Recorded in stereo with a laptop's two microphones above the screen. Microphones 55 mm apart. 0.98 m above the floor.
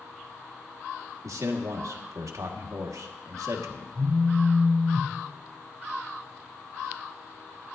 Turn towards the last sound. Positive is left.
turn(degrees=-70)  # may be behind; listen again after turning